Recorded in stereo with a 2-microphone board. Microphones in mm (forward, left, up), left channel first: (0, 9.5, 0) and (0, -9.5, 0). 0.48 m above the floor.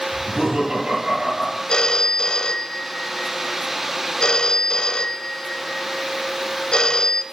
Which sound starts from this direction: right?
Laughter, at 0.1 s.